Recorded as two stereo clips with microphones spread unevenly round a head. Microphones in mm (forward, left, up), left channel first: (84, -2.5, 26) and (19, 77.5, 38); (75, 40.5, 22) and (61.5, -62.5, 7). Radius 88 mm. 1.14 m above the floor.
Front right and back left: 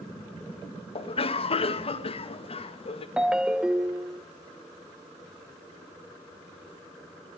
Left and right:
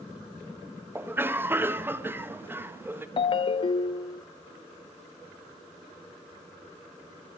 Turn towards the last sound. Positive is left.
turn(degrees=50)